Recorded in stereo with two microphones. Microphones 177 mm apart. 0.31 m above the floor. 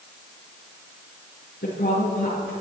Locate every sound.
1.6 s a woman speaking: 70° left (ahead or behind), 5 m